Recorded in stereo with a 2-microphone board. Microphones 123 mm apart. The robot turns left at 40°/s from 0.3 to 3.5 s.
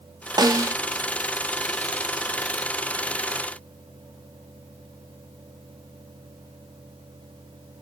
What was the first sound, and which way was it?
A snare drum, 30° right (ahead or behind).